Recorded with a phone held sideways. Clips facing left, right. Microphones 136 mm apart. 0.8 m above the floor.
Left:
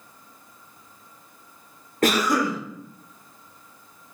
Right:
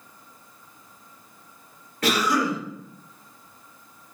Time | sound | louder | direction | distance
2.0 | a cough | left 2 dB | 45° left (ahead or behind) | 0.7 m